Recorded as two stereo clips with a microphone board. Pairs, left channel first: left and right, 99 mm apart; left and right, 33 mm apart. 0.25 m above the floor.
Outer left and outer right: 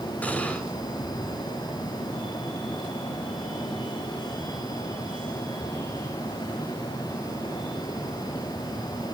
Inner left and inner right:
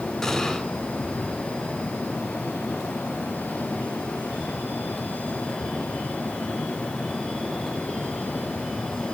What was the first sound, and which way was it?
An explosion, 15° left (ahead or behind).